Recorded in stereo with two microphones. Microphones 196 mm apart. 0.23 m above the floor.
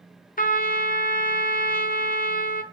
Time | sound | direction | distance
0.4 | a trumpet | 45° left (ahead or behind) | 1.0 m